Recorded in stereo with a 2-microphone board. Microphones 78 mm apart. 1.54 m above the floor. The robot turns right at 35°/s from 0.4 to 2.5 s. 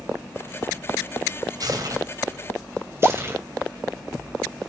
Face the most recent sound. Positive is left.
turn(degrees=-35)  # may be behind; listen again after turning